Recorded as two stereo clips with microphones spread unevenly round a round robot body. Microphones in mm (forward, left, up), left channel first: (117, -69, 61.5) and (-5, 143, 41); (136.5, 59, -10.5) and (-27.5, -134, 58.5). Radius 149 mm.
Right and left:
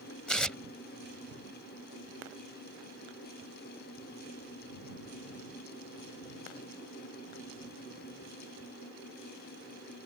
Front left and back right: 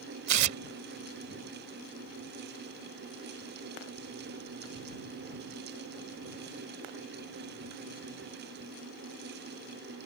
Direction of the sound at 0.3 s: 150° right.